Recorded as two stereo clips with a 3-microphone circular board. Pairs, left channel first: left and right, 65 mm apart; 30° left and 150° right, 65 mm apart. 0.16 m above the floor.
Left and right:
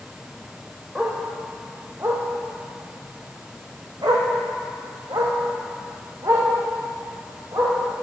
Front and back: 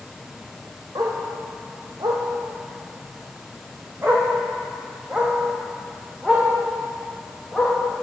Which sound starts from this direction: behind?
A dog barking, at 0.9 s.